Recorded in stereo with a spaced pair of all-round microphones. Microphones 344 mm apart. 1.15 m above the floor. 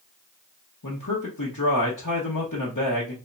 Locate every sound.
0.8 s a man speaking: 65° left (ahead or behind), 1.1 m